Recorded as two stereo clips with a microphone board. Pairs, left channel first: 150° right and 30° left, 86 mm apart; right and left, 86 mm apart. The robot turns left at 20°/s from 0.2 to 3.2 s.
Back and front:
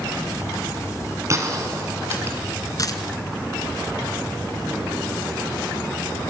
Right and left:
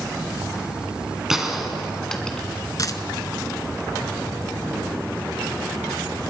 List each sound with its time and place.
1.3 s a gunshot: 10° left, 2 m; by 2.5 s 15° right, 2 m
2.8 s a dropped coin: 120° right, 1.1 m; by 3.0 s 125° right, 1.1 m